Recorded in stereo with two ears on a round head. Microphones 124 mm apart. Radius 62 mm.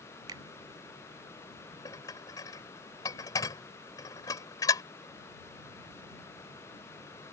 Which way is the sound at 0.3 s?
30° right (ahead or behind).